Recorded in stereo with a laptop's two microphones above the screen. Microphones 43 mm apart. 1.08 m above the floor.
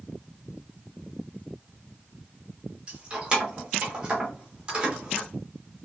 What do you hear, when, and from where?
2.9 s keys jangling: 25° right (ahead or behind), 1.0 m